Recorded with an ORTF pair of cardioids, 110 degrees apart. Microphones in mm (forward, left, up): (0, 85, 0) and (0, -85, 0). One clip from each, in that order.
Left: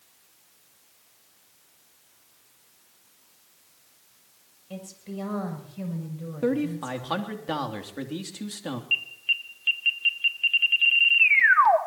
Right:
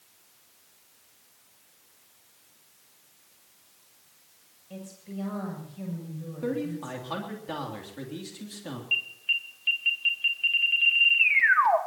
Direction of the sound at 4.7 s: 35° left.